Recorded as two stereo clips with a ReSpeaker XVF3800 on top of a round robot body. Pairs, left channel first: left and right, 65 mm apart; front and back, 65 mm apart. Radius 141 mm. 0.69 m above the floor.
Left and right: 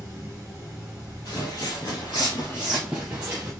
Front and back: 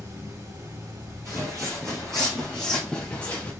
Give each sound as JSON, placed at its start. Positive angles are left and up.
{"t": 0.0, "sound": "running water", "azimuth_deg": -160, "distance_m": 1.9}
{"t": 1.2, "sound": "footsteps", "azimuth_deg": 125, "distance_m": 1.0}